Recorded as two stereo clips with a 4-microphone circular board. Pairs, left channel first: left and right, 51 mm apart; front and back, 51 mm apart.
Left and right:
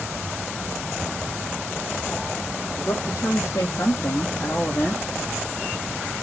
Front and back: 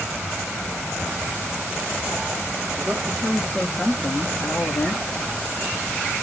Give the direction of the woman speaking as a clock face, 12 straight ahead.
8 o'clock.